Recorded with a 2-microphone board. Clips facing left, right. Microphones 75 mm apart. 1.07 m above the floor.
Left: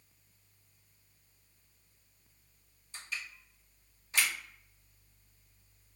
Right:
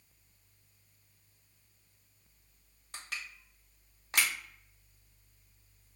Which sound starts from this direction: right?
Crushing, at 2.9 s.